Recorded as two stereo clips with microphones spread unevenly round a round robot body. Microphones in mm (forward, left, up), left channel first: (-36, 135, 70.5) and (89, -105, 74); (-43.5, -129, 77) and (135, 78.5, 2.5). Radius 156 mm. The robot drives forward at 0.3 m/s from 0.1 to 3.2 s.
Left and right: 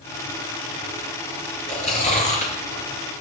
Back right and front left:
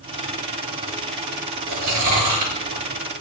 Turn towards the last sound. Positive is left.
turn(degrees=55)